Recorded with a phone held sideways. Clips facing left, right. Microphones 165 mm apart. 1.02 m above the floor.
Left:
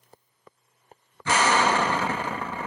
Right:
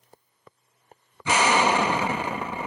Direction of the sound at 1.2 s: 15° right (ahead or behind).